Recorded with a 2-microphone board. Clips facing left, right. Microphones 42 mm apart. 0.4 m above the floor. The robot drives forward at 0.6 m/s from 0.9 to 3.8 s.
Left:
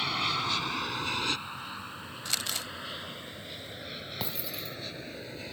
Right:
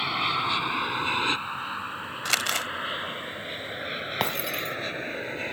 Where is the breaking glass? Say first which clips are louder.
Right 11 dB; 60° right (ahead or behind).